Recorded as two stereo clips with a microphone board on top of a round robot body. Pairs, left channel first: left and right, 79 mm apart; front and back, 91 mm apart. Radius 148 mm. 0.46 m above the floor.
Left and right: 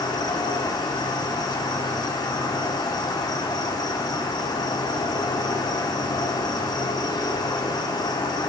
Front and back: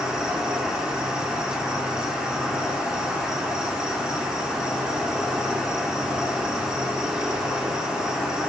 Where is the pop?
No pop in this recording.